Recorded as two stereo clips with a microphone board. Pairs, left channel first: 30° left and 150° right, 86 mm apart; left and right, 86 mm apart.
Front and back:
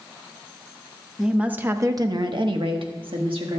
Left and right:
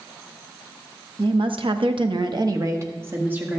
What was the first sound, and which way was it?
A woman speaking, 65° right.